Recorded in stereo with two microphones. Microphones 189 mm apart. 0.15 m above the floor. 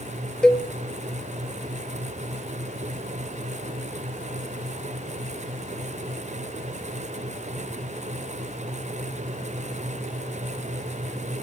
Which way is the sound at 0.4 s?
5° left (ahead or behind).